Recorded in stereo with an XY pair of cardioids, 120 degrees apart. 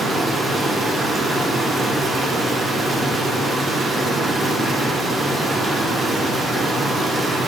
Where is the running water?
25° right, 2 m.